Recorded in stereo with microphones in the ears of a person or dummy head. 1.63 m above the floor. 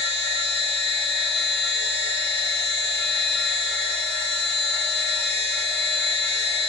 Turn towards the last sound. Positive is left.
turn(degrees=75)  # may be behind; listen again after turning